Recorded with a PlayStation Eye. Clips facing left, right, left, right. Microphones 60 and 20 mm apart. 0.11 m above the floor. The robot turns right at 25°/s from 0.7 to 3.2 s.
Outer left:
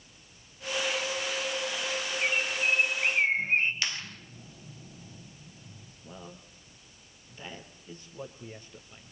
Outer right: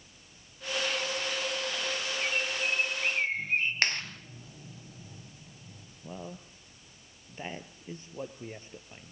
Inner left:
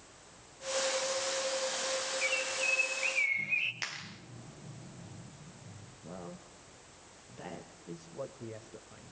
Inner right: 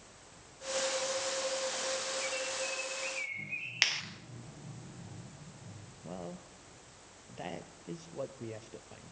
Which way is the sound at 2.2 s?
35° left (ahead or behind).